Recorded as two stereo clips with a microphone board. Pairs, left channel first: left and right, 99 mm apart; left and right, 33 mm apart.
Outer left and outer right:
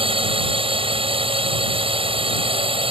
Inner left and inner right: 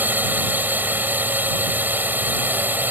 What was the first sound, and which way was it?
A drone, 65° right (ahead or behind).